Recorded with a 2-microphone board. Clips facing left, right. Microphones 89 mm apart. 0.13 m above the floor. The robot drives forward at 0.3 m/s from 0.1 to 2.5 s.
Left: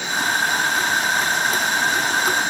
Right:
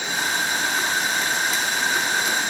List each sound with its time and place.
Only background noise.